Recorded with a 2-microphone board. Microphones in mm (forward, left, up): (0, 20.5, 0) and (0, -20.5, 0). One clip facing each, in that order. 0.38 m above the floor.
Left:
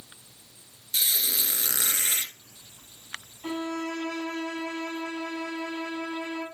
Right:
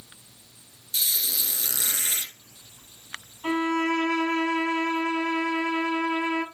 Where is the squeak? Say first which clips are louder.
Left 1 dB; 45° left (ahead or behind), 1.8 m.